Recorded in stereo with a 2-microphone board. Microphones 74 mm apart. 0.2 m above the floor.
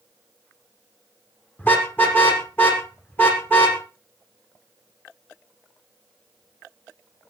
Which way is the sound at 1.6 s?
25° left (ahead or behind).